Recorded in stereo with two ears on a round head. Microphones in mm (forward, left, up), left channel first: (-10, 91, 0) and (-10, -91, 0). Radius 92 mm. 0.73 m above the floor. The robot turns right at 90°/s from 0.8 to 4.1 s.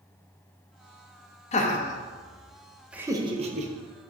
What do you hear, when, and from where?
1.5 s laughter: 35° left (ahead or behind), 0.5 m; by 3.7 s 40° right (ahead or behind), 0.5 m